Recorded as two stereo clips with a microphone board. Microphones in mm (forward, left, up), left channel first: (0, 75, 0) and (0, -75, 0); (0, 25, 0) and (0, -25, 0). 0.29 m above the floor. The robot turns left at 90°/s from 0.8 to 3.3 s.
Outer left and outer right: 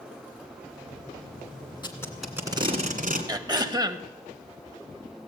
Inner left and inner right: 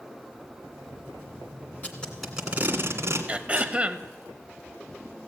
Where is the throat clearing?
25° right (ahead or behind), 0.7 m.